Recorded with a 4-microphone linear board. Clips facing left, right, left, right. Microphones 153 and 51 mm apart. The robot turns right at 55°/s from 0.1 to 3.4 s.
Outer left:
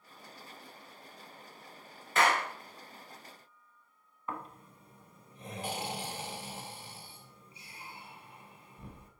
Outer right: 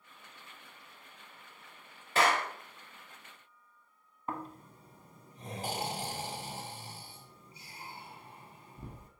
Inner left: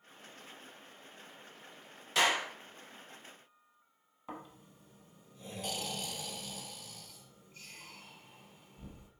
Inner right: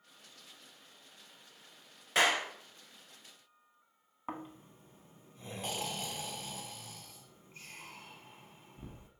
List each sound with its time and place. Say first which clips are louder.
2.1 s a clap: even, inner right 1 dB; 35° right (ahead or behind), 1.7 m; by 2.5 s 20° right (ahead or behind), 1.7 m
4.3 s snoring: outer right 2 dB, inner right 4 dB; 40° right (ahead or behind), 0.9 m